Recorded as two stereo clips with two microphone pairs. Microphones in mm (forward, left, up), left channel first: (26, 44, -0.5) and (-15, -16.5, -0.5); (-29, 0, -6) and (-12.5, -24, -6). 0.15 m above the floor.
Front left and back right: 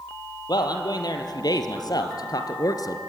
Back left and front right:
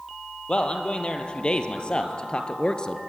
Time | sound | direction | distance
0.5 | a man speaking | 70° left | 3.5 m